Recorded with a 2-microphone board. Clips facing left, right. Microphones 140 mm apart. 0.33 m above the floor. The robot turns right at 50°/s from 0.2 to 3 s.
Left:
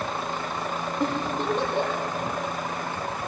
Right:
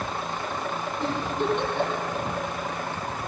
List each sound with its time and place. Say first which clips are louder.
1.0 s a giggle: even; 70° left (ahead or behind), 8.5 m; by 2.1 s 15° left (ahead or behind), 8.5 m